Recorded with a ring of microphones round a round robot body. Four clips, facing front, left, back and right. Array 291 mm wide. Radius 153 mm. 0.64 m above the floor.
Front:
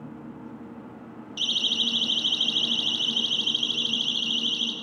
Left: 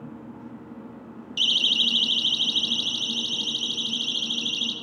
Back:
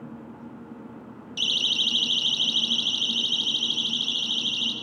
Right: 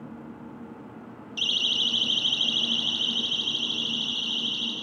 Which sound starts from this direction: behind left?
A siren, at 1.4 s.